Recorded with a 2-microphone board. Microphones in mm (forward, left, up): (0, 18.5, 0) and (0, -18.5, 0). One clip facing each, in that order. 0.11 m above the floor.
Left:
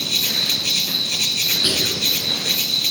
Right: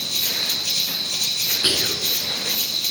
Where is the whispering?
15° right (ahead or behind), 1.3 m.